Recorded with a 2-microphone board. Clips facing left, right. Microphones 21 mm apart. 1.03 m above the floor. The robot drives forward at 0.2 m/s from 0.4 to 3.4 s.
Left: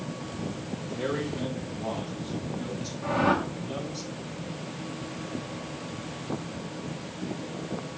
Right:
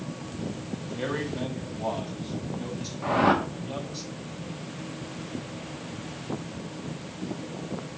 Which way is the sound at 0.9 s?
45° right (ahead or behind).